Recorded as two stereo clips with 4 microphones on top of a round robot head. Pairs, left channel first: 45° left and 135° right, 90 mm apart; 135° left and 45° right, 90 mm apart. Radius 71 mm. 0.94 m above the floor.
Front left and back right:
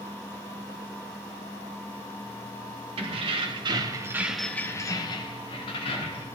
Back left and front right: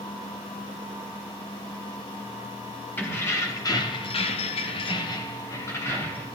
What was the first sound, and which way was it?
Keys jangling, 160° right.